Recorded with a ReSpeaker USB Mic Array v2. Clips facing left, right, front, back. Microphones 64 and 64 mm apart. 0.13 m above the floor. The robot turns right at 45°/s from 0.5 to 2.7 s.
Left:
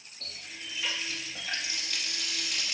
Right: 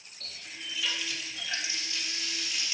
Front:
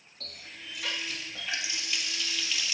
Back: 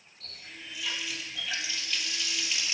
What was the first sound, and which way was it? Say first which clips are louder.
A running tap: even, front 1 dB; 15° left.